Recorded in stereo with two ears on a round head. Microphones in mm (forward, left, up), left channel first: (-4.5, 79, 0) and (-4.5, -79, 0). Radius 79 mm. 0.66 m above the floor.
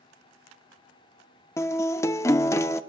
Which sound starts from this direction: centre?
A guitar, at 1.6 s.